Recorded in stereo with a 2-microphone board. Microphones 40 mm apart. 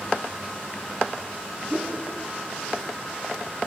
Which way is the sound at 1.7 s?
35° right (ahead or behind).